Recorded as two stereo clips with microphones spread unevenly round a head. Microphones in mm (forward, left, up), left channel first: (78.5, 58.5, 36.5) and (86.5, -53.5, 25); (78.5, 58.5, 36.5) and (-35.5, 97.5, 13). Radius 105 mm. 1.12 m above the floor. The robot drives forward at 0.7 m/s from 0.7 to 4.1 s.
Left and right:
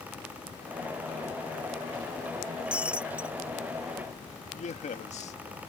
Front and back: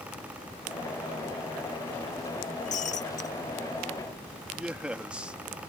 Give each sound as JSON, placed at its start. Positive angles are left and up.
{"t": 2.7, "sound": "breaking glass", "azimuth_deg": -5}
{"t": 4.5, "sound": "a man speaking", "azimuth_deg": 80}